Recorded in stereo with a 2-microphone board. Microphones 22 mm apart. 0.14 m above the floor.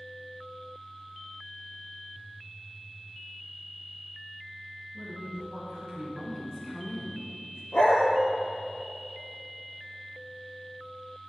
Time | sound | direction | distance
4.9 | a woman speaking | 45° right (ahead or behind) | 1.5 m
7.7 | a dog barking | 65° left (ahead or behind) | 1.1 m